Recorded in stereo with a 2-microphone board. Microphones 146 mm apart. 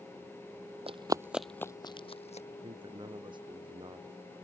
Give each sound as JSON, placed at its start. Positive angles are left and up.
{"t": 0.9, "sound": "running footsteps", "side_deg": -45}
{"t": 2.6, "sound": "a man speaking", "side_deg": -35}